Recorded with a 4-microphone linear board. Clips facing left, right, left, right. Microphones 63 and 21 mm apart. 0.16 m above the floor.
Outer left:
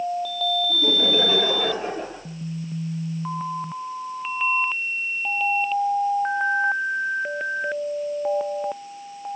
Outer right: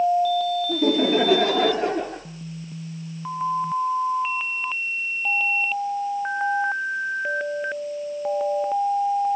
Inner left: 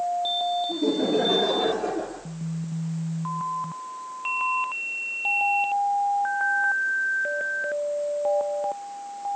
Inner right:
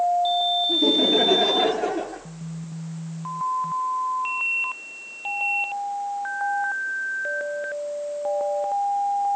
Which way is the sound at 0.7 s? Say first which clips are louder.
Outer right 4 dB, inner right 5 dB; 60° right (ahead or behind).